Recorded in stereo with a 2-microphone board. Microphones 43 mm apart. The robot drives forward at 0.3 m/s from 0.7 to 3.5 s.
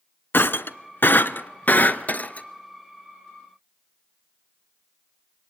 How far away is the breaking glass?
About 0.8 m.